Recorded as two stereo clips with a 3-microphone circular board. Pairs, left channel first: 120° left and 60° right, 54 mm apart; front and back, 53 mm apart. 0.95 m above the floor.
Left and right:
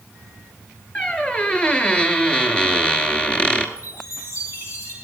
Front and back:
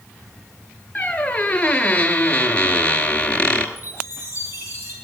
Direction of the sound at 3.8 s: 135° left.